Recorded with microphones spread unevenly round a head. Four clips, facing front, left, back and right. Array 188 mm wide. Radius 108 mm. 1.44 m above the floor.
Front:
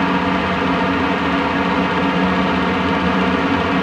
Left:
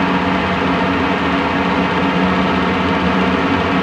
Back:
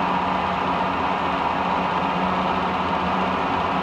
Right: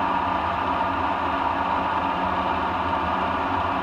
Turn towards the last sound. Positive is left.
turn(degrees=70)